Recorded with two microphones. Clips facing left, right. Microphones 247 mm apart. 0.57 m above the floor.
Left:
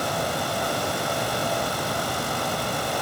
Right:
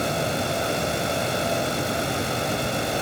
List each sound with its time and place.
Only background noise.